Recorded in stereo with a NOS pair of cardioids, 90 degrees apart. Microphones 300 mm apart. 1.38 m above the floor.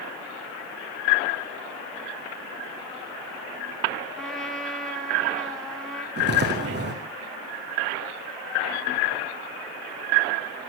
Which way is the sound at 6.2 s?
35° right.